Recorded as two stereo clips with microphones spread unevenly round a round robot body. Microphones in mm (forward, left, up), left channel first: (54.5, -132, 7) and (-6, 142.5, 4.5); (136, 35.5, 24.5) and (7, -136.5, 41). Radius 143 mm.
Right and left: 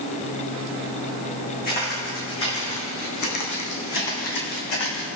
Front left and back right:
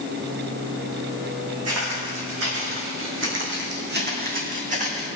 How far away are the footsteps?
About 3.5 m.